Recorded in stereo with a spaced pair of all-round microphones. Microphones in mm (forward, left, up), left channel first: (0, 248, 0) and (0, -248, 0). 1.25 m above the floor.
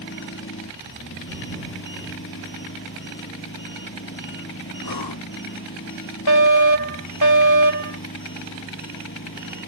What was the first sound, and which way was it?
An engine running, 25° left (ahead or behind).